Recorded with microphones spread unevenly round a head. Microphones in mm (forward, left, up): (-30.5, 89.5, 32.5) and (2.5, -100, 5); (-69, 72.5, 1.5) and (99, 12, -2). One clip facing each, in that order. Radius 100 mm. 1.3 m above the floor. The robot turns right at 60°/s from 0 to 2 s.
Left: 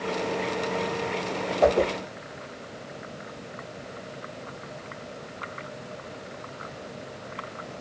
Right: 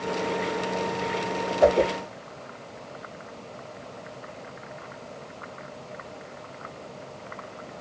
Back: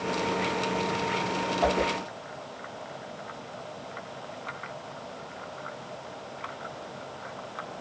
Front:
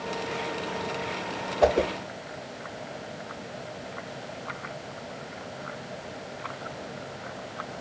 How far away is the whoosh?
About 0.6 m.